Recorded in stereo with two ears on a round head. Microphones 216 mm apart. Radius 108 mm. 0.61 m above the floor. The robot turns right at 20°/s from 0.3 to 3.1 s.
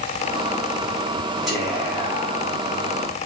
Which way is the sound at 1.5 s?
Centre (ahead or behind).